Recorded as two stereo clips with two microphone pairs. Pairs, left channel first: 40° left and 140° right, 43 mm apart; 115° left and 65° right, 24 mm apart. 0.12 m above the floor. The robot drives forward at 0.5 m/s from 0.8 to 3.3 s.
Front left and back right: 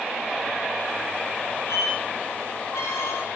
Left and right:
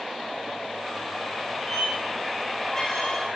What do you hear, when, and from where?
1.7 s a squeak: 45° left, 8.5 m; by 3.2 s 50° left, 8 m